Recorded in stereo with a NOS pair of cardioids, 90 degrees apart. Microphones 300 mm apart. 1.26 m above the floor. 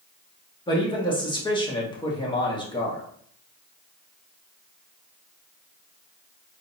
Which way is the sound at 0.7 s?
15° left.